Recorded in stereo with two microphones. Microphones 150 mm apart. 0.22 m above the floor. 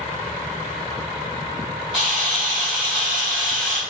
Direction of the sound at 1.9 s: Centre (ahead or behind).